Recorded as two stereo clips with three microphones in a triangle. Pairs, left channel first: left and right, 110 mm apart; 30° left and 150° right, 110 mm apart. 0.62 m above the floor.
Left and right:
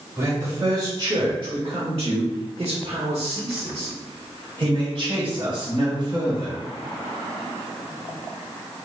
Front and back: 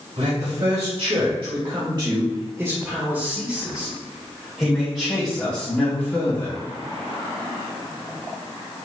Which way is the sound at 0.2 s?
150° right.